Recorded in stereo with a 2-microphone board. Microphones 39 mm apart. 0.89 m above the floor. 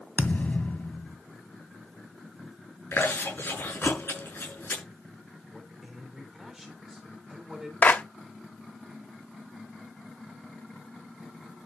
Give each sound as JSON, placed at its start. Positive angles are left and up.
{"t": 0.2, "sound": "a thud", "side_deg": 40, "distance_m": 1.6}
{"t": 2.9, "sound": "chewing", "side_deg": 60, "distance_m": 7.0}
{"t": 5.5, "sound": "a man speaking", "side_deg": -5, "distance_m": 3.5}
{"t": 7.8, "sound": "a clap", "side_deg": 45, "distance_m": 1.2}